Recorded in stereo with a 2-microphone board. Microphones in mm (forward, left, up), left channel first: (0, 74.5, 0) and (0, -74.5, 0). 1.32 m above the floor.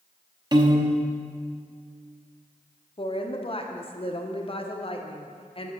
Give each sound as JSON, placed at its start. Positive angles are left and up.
{"t": 0.5, "sound": "a piano", "side_deg": -30, "distance_m": 0.8}
{"t": 3.0, "sound": "a woman speaking", "side_deg": 40, "distance_m": 0.6}